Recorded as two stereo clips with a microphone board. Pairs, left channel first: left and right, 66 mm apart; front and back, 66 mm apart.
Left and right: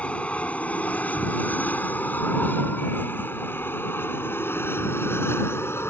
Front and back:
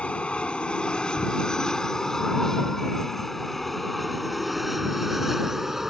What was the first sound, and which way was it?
An aircraft, 50° left.